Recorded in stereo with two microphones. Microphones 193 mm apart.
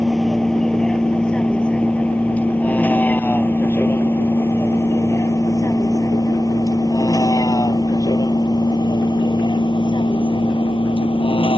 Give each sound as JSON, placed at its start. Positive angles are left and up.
{"t": 0.0, "sound": "a vehicle", "side_deg": 0}